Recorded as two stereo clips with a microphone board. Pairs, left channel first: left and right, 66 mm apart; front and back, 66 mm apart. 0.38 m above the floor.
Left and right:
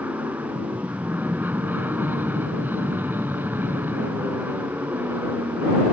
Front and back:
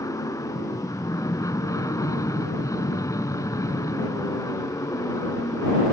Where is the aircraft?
30° right; by 5.9 s 35° right.